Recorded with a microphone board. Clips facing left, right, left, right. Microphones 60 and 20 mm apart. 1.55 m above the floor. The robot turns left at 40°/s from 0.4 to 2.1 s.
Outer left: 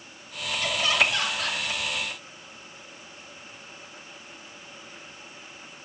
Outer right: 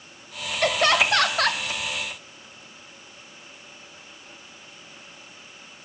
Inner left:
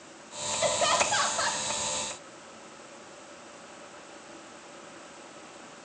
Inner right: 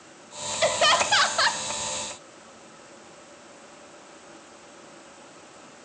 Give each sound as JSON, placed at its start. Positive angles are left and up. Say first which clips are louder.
{"t": 0.6, "sound": "laughter", "louder": "outer right 5 dB, inner right 5 dB", "azimuth_deg": -65, "distance_m": 0.9}